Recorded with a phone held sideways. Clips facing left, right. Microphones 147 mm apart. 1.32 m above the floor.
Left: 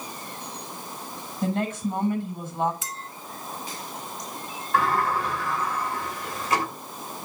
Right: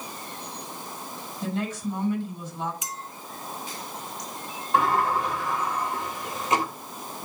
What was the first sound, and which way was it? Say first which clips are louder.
A woman speaking: left 3 dB; 55° left (ahead or behind).